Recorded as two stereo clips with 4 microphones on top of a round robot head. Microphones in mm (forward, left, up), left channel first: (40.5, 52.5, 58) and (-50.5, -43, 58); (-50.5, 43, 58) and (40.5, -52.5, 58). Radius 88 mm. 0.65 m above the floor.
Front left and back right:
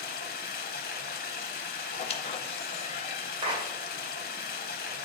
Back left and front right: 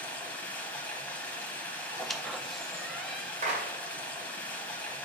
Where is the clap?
75° right, 1.9 m.